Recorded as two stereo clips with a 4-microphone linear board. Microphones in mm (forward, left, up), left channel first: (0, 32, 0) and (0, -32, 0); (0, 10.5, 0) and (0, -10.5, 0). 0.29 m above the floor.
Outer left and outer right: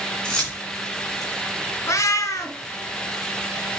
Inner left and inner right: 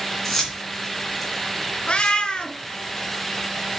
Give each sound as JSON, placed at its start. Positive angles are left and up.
{"t": 0.2, "sound": "keys jangling", "side_deg": 15, "distance_m": 2.5}
{"t": 1.9, "sound": "a cat meowing", "side_deg": 60, "distance_m": 0.8}